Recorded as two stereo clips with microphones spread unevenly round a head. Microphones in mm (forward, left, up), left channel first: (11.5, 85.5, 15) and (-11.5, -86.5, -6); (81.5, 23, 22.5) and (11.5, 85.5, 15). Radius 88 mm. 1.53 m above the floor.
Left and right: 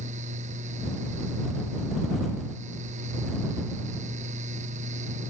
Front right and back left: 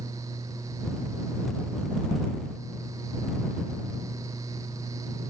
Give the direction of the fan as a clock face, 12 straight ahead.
5 o'clock.